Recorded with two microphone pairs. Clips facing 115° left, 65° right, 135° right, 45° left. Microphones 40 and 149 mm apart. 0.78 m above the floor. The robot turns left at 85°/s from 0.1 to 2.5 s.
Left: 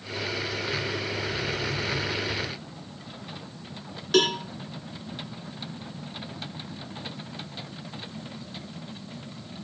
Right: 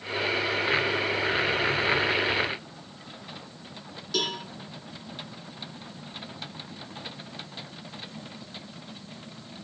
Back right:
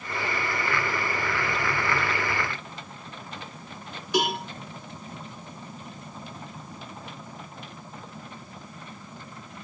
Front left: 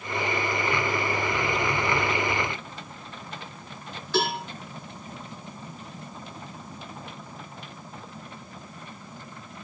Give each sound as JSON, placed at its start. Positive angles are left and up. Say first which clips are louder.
{"t": 4.1, "sound": "a cowbell", "louder": "left 7 dB, even", "azimuth_deg": 150, "distance_m": 2.5}